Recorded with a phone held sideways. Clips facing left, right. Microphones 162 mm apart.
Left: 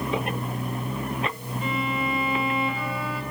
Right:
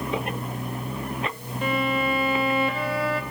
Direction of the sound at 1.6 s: 75° right (ahead or behind).